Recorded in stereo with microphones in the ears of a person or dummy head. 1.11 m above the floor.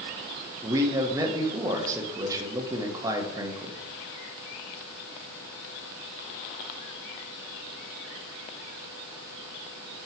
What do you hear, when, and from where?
0.6 s a man speaking: 15° right (ahead or behind), 0.9 m